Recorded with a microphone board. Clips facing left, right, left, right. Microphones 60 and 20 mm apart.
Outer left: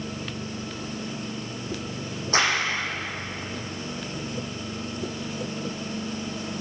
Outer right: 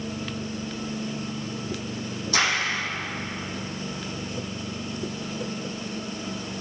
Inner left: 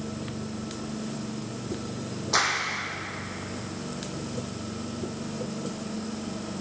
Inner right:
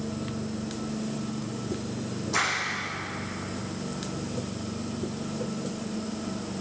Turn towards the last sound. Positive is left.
turn(degrees=40)  # may be behind; listen again after turning